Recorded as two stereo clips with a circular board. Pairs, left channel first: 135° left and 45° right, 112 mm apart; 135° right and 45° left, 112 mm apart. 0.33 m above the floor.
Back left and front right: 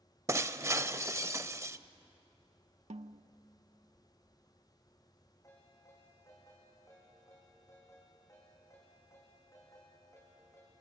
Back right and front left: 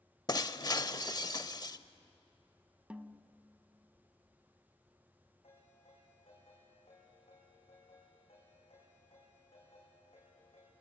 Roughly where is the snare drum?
Ahead right.